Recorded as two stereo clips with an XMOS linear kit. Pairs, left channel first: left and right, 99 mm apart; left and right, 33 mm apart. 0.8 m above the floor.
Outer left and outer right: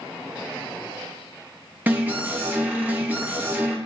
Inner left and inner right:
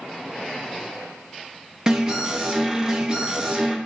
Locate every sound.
1.9 s an alarm: 20° right (ahead or behind), 0.6 m